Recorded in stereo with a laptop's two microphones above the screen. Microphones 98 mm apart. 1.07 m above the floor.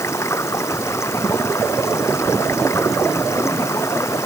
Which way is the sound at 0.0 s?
30° left (ahead or behind).